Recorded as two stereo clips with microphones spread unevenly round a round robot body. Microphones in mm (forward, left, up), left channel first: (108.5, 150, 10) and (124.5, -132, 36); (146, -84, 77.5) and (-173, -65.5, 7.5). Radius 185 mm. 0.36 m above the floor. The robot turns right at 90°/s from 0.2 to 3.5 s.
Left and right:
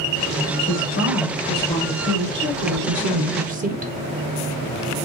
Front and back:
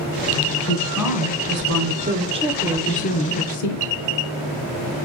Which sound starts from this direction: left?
A woman speaking, at 0.6 s.